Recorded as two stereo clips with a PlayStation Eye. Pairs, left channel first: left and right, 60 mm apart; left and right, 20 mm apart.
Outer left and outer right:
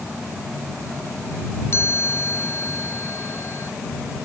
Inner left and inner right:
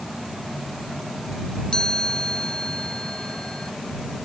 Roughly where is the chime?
Left.